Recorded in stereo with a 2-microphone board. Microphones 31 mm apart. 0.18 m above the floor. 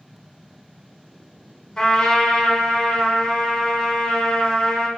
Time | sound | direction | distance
1.8 | a trumpet | 20° left (ahead or behind) | 0.8 m